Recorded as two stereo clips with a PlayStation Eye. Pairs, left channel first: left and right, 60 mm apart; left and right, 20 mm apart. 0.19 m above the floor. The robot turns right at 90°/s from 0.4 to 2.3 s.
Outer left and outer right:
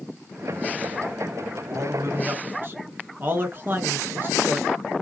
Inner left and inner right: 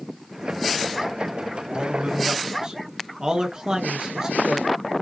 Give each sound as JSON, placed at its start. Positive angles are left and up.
{"t": 1.7, "sound": "a man speaking", "azimuth_deg": -100, "distance_m": 2.5}